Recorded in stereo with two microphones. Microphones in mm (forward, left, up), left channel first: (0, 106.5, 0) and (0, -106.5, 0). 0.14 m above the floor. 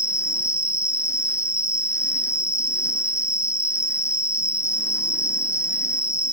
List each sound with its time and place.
0.0 s an insect: 10° left (ahead or behind), 1.8 m